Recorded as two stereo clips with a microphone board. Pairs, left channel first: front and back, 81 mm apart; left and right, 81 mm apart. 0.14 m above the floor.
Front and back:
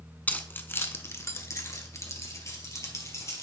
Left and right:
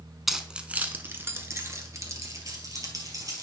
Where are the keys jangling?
5° right, 0.7 m; by 3.4 s 50° right, 2 m.